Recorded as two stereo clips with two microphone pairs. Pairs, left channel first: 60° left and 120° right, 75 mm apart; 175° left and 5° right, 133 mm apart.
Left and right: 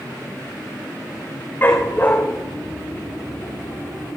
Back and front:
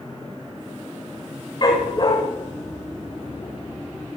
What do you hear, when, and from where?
1.6 s a dog barking: 120° left, 8 m; by 4.2 s 125° left, 10 m